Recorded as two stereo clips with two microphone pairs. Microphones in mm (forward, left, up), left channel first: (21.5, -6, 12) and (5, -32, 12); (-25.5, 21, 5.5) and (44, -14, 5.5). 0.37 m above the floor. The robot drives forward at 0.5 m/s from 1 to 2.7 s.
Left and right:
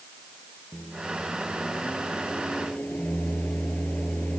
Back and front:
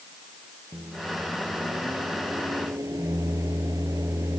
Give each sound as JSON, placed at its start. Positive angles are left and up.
{"t": 0.7, "sound": "a microwave", "azimuth_deg": 20}